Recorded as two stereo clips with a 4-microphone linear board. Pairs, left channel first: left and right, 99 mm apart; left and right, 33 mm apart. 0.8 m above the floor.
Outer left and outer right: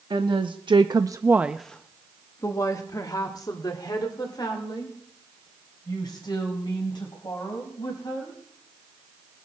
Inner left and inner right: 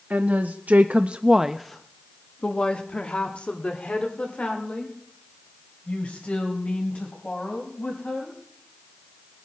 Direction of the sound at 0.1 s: 55° right (ahead or behind).